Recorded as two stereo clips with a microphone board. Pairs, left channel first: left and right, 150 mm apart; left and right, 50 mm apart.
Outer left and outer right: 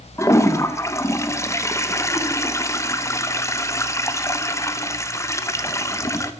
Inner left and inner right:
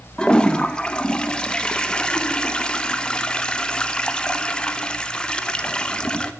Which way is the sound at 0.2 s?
20° left (ahead or behind).